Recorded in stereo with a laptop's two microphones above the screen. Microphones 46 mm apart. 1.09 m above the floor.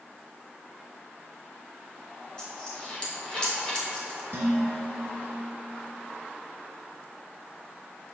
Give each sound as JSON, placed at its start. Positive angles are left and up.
{"t": 2.4, "sound": "a dropped coin", "side_deg": 20, "distance_m": 0.8}
{"t": 4.3, "sound": "dishes clattering", "side_deg": -70, "distance_m": 1.2}